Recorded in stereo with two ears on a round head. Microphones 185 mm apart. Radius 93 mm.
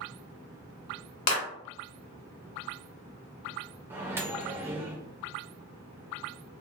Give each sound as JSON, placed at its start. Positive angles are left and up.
{"t": 1.3, "sound": "a clap", "side_deg": 55, "distance_m": 1.9}
{"t": 3.9, "sound": "a microwave", "side_deg": -10, "distance_m": 0.7}